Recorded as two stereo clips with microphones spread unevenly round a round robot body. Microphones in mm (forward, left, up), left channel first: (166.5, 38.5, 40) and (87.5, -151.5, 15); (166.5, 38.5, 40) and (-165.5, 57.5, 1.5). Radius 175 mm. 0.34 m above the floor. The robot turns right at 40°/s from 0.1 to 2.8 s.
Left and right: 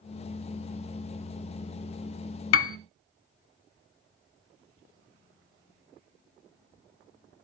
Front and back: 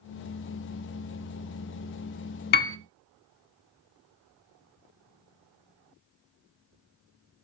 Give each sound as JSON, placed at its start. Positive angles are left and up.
{"t": 2.5, "sound": "a piano", "azimuth_deg": 60, "distance_m": 0.6}